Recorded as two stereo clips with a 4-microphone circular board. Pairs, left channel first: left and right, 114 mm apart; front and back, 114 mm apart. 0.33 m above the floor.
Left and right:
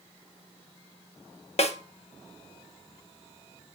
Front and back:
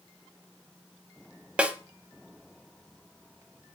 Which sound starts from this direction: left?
A snare drum, at 1.6 s.